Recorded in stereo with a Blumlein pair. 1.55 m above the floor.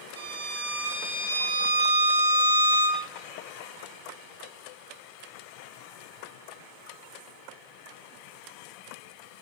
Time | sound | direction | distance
0.2 | a violin | 65° right | 1.2 m